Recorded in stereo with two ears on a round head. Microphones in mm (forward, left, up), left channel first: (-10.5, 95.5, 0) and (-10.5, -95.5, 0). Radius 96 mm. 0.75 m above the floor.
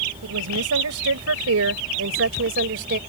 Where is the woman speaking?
80° right; by 3.0 s 55° right (ahead or behind).